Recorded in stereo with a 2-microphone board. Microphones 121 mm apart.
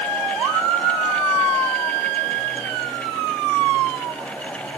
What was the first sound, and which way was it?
Only background noise.